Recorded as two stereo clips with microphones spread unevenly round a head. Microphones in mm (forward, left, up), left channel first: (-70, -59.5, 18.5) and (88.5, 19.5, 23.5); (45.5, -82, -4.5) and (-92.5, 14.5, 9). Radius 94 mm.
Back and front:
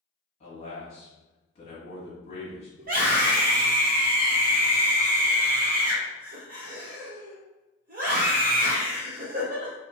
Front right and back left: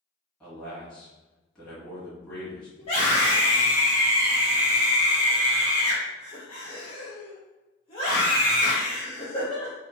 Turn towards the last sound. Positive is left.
turn(degrees=10)